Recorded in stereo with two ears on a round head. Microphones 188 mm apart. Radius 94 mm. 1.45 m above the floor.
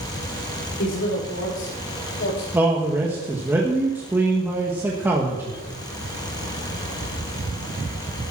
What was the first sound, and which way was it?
A man speaking, 70° left (ahead or behind).